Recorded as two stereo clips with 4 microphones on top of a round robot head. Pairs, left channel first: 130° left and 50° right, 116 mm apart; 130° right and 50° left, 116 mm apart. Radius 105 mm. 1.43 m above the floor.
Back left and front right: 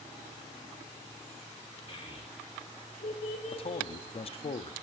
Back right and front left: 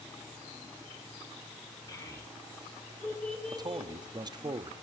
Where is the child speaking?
170° left, 3 m; by 4.5 s 130° left, 3 m.